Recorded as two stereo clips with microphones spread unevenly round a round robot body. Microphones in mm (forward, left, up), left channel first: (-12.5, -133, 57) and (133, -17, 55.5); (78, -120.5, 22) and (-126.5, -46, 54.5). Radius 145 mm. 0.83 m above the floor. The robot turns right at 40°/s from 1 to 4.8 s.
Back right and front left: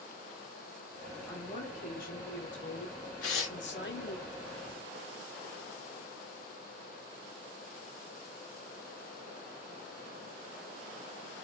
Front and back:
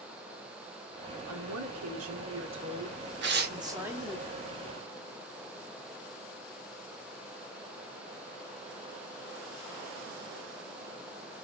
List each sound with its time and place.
1.3 s a woman speaking: 140° left, 1.5 m; by 4.2 s 105° right, 1.5 m
3.2 s tearing paper: 165° right, 1.0 m; by 3.6 s 150° right, 1.0 m